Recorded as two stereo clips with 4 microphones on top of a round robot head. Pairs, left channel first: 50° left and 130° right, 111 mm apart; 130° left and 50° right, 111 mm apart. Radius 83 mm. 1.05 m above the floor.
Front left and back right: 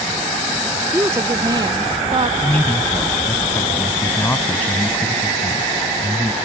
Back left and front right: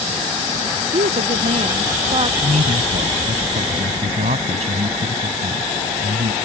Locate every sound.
0.9 s a woman speaking: 55° right; by 2.3 s 95° right
2.4 s a man speaking: 20° right